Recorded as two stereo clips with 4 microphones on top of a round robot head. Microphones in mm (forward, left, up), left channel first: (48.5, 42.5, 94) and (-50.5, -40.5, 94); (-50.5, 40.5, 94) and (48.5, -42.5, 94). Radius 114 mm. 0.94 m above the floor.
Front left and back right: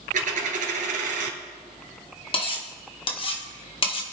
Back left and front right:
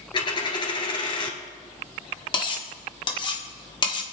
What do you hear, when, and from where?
0.1 s a dropped coin: 165° right, 1.6 m
2.3 s cutlery clinking: 85° left, 1.6 m